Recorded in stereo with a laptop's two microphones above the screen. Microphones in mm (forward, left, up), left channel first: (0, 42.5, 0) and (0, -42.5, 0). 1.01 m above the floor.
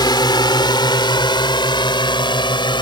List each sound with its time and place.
0.0 s a drone: 60° left (ahead or behind); by 2.8 s 70° left (ahead or behind)